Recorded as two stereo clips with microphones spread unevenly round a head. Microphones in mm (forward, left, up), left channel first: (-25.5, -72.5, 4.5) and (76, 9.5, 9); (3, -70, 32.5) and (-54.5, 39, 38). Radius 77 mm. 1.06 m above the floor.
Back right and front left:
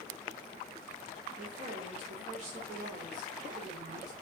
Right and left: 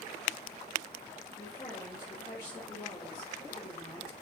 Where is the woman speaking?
5° left, 3.5 m.